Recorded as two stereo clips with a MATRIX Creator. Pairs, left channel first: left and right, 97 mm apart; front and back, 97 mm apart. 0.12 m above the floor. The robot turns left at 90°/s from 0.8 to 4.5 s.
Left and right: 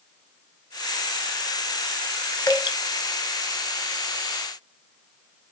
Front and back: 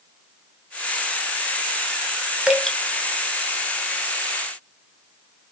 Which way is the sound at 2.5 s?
105° left.